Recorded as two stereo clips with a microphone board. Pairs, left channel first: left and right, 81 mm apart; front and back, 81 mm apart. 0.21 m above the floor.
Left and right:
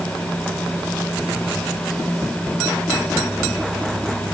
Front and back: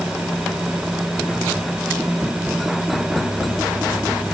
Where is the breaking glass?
I don't hear breaking glass.